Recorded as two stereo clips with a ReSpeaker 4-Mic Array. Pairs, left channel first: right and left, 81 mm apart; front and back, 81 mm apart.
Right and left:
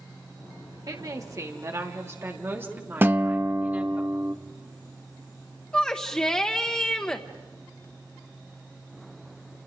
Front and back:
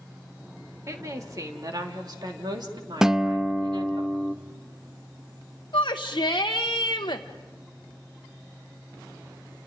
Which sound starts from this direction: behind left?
A woman speaking, at 0.9 s.